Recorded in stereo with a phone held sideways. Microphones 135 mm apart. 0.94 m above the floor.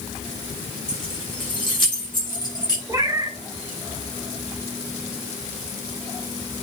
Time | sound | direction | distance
0.9 | keys jangling | 45° left (ahead or behind) | 6 m
2.9 | a cat meowing | 25° right (ahead or behind) | 1.8 m